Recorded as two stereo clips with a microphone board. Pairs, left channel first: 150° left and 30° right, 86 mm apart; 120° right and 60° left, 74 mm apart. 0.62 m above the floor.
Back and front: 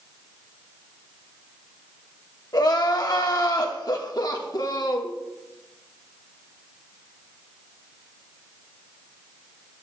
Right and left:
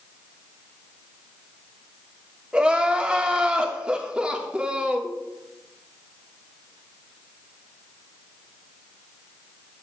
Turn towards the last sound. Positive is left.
turn(degrees=135)